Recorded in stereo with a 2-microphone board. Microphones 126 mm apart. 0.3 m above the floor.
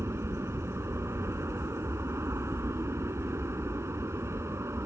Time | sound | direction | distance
0.0 | an aircraft | 20° right (ahead or behind) | ?